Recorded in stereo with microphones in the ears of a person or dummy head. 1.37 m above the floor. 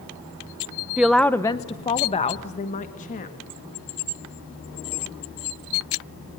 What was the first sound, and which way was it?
A woman speaking, 5° right (ahead or behind).